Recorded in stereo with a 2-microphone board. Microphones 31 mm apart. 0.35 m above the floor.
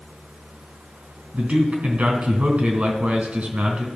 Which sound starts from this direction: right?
A man speaking, at 1.3 s.